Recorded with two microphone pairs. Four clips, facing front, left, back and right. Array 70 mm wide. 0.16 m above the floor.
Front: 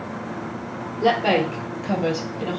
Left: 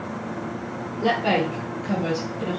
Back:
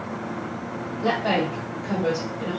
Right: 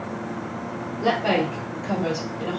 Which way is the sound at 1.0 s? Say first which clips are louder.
Even, front 4 dB; 5° right.